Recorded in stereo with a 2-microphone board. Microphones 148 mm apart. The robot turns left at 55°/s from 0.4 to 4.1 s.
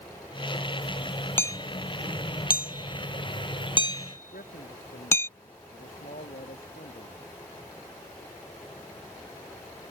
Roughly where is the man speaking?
Left.